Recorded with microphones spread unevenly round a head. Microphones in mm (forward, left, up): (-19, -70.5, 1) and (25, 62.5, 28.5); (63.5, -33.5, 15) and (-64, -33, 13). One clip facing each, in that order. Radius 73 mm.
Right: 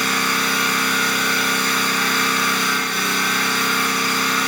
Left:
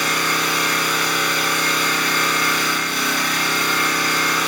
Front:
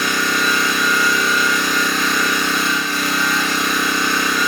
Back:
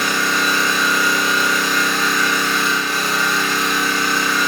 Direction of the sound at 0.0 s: 130° left.